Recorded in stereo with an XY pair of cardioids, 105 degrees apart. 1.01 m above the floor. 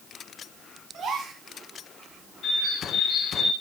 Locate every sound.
0.9 s a gasp: 55° right, 6 m
2.4 s a bird: 55° left, 2.5 m